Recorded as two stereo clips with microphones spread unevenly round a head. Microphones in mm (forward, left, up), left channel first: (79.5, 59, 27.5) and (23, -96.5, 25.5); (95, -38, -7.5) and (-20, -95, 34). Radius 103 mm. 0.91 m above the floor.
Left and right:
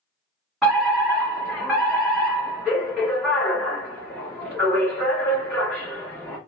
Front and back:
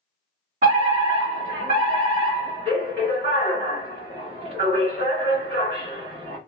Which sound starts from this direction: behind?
A fire alarm, at 0.6 s.